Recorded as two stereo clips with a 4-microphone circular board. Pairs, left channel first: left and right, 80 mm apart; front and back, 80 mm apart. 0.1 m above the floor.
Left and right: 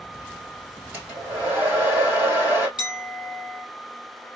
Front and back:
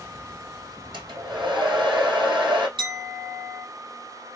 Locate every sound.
0.9 s a hair dryer: 155° right, 2.5 m
2.8 s a clink: 165° right, 2.5 m